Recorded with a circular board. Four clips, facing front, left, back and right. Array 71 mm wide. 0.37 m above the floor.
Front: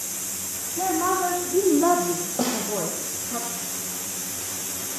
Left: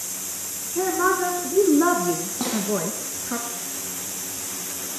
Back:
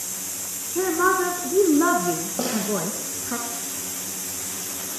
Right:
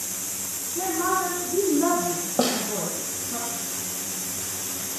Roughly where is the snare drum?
Right.